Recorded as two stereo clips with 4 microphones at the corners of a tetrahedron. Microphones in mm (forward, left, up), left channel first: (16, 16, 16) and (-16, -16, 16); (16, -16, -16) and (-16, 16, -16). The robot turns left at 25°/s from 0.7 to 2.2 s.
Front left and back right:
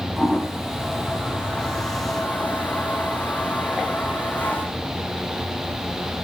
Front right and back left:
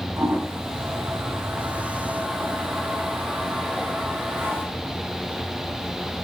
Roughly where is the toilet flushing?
Behind left.